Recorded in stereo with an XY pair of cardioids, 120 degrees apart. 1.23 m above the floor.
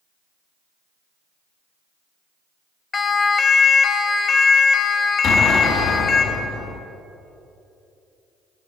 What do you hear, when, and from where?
2.9 s a siren: 30° left, 2.5 m; by 6.2 s 50° left, 4.5 m
5.2 s an explosion: 65° left, 4 m